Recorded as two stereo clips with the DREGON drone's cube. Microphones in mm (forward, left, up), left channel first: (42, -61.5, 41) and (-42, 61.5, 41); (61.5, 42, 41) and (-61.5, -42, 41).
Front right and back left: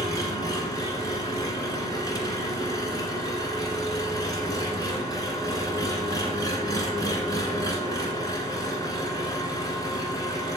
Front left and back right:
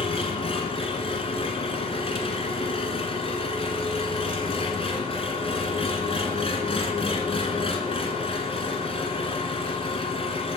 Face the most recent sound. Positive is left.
turn(degrees=0)